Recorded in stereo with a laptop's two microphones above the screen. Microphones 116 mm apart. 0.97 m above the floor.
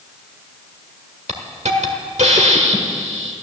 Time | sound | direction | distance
1.3 | a hiss | 75° right (ahead or behind) | 1.5 m